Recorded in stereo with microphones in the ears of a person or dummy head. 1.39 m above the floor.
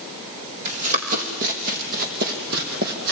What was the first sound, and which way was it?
Running footsteps, 40° right (ahead or behind).